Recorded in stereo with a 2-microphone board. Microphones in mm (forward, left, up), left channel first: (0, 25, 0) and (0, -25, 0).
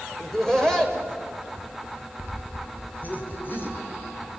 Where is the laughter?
5° left (ahead or behind), 3.5 m; by 3.8 s 45° left (ahead or behind), 4 m.